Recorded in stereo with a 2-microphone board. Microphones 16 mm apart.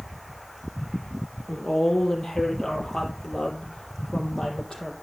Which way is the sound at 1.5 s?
50° left (ahead or behind).